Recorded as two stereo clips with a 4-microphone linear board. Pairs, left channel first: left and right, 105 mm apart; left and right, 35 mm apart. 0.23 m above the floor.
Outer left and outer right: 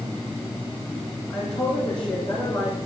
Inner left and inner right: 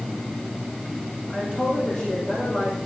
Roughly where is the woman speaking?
Left.